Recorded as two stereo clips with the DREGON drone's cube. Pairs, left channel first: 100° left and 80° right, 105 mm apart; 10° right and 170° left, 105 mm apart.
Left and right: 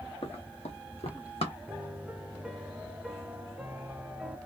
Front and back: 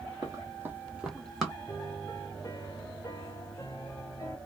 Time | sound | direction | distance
0.2 | running footsteps | 120° left | 1.2 m
1.7 | a piano | straight ahead | 0.9 m